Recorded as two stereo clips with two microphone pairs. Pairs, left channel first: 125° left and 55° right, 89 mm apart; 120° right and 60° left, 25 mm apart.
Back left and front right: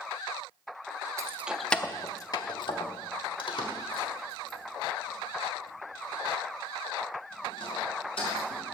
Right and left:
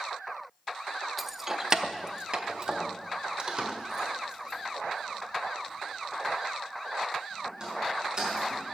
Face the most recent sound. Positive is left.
turn(degrees=120)